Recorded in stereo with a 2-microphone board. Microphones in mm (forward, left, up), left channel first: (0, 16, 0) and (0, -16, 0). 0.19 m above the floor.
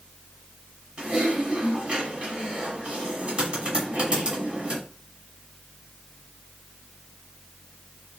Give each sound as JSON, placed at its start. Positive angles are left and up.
{"t": 1.0, "sound": "typing on a keyboard", "side_deg": -30, "distance_m": 1.4}